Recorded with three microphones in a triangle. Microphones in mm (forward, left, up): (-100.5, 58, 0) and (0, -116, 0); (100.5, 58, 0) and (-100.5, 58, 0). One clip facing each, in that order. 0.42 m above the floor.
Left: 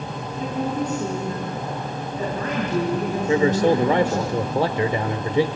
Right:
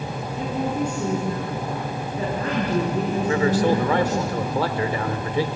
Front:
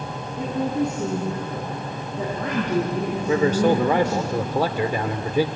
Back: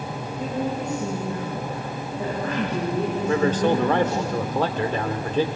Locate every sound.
0.4 s a woman speaking: 10° left, 6.5 m; by 4.3 s 15° right, 6.5 m
3.3 s a man speaking: 75° left, 0.8 m